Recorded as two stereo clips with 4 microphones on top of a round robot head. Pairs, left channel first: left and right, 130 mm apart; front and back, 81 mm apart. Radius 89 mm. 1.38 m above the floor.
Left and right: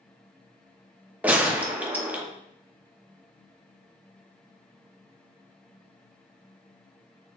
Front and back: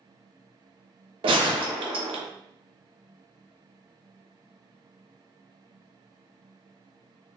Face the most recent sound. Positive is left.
turn(degrees=-170)